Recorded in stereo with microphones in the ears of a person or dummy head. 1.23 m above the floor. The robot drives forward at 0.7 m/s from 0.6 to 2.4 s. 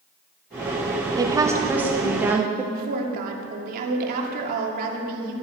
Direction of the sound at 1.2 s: 20° right (ahead or behind).